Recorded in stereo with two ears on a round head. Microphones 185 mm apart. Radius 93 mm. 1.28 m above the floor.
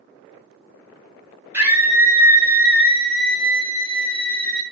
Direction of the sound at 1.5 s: 10° right (ahead or behind).